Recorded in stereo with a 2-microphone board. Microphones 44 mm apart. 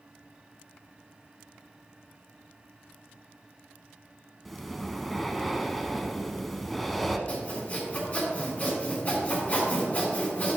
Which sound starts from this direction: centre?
Breathing, at 4.5 s.